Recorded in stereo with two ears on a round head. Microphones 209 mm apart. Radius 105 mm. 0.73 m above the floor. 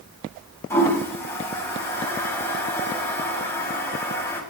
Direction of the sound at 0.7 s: 10° left (ahead or behind).